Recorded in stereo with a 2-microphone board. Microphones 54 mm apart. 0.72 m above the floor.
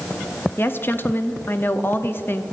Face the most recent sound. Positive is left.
turn(degrees=45)  # may be behind; listen again after turning